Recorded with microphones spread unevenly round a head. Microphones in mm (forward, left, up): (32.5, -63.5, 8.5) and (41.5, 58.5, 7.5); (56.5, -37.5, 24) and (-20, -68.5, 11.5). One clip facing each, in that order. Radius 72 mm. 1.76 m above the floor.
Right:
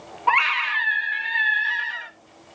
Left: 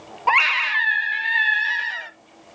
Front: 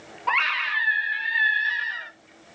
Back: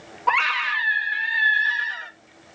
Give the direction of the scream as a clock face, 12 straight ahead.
8 o'clock.